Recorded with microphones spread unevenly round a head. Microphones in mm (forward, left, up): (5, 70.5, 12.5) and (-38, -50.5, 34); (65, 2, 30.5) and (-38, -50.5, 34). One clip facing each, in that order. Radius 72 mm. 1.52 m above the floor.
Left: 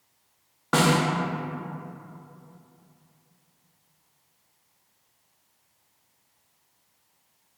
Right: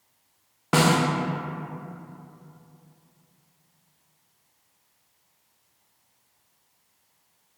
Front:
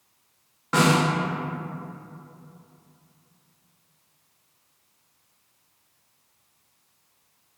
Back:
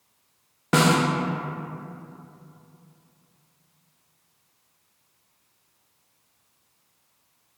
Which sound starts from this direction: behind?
A snare drum, at 0.7 s.